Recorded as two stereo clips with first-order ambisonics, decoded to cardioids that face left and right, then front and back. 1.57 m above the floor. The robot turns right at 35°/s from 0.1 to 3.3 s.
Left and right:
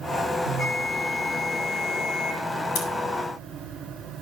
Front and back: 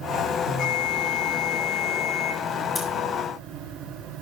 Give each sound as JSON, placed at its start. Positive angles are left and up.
{"t": 0.5, "sound": "a bell", "azimuth_deg": 35, "distance_m": 5.5}
{"t": 2.8, "sound": "scissors", "azimuth_deg": 75, "distance_m": 3.5}